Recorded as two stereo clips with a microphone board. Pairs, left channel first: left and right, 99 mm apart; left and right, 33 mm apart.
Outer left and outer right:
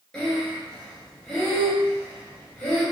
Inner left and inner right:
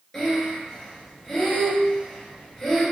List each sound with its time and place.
0.1 s breathing: 10° left (ahead or behind), 1.7 m